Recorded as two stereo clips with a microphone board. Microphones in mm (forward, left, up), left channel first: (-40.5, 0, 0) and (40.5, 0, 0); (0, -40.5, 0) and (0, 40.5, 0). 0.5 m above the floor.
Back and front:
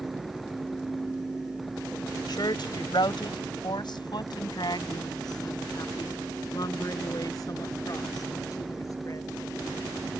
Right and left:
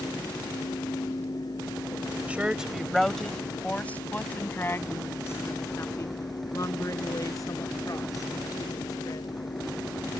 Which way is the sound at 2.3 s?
160° left.